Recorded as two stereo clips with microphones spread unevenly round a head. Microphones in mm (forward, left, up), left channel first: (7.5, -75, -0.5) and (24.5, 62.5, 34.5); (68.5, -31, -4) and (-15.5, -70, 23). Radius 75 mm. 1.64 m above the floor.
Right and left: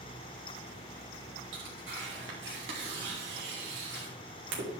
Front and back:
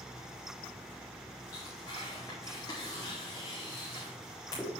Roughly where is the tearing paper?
Left.